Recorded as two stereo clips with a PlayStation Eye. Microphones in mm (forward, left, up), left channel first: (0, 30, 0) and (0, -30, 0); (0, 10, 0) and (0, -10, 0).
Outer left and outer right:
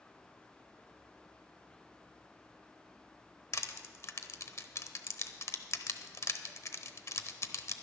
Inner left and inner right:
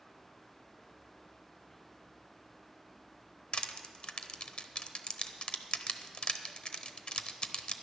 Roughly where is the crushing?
Left.